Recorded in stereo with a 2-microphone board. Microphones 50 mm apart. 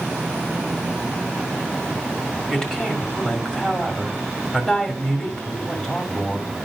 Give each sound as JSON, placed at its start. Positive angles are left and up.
{"t": 2.5, "sound": "a woman speaking", "side_deg": 20, "distance_m": 2.0}